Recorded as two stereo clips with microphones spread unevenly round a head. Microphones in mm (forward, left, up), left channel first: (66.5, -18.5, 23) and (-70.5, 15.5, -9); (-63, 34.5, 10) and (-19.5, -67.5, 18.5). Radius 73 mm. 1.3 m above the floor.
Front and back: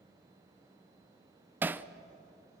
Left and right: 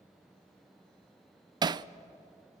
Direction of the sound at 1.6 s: 120° right.